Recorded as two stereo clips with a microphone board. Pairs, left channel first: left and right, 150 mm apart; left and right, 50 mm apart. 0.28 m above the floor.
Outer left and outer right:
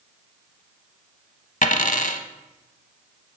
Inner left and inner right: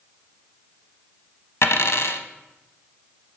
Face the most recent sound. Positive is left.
turn(degrees=60)  # may be behind; listen again after turning